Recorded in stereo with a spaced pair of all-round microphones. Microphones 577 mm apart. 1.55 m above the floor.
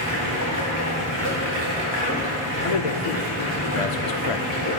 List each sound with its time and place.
0.0 s running water: 30° left (ahead or behind), 3 m
2.6 s a man speaking: 65° left (ahead or behind), 0.7 m